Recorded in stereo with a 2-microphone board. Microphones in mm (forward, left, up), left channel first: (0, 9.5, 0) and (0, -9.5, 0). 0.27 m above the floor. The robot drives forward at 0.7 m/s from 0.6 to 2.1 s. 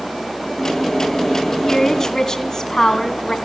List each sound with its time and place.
1.7 s a woman speaking: 25° left (ahead or behind), 2 m; by 3.4 s 30° left (ahead or behind), 1.9 m